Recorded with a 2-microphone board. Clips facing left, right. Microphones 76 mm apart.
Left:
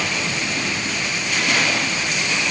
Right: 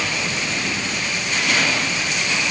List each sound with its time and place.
Only background noise.